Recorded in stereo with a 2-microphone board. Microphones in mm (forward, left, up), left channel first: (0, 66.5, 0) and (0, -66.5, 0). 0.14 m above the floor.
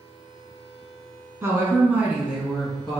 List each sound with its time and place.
1.4 s a woman speaking: 20° right (ahead or behind), 1.1 m; by 3.0 s centre (ahead or behind), 1.2 m